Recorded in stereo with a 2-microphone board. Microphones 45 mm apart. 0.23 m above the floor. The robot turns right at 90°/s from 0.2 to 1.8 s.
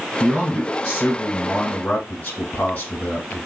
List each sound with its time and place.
0.2 s a man speaking: 25° right, 1.6 m; by 3.5 s 115° left, 1.6 m